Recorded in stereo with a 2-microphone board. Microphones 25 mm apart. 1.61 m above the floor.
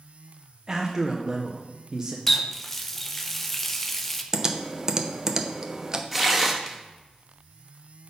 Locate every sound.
0.7 s a man speaking: 25° right (ahead or behind), 0.9 m
2.3 s a running tap: 10° left (ahead or behind), 0.7 m
4.3 s typing on a keyboard: 20° right (ahead or behind), 0.7 m
6.1 s tearing paper: 5° right (ahead or behind), 1.2 m